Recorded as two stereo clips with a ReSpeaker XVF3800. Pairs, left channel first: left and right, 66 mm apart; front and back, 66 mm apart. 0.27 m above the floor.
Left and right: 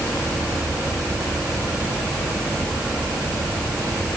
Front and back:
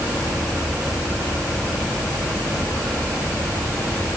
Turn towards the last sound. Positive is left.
No sound to turn to.